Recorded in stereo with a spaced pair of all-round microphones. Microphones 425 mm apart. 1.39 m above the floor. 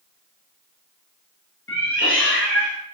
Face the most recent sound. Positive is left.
turn(degrees=25)  # may be behind; listen again after turning